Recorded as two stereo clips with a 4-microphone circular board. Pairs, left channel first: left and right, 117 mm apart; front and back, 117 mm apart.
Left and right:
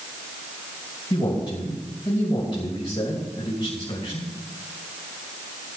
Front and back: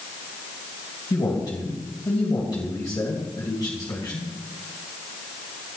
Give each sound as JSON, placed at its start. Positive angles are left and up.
{"t": 1.1, "sound": "a man speaking", "azimuth_deg": 50, "distance_m": 3.0}